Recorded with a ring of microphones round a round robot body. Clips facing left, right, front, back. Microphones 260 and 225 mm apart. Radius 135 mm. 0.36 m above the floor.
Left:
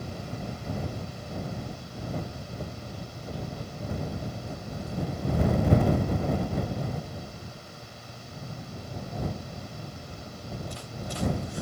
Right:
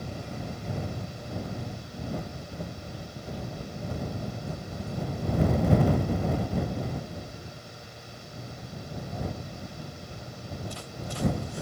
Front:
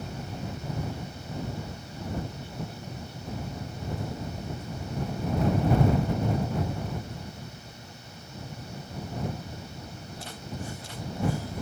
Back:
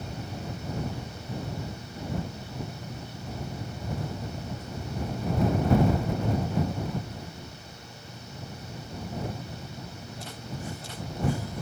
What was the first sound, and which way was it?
Only background noise.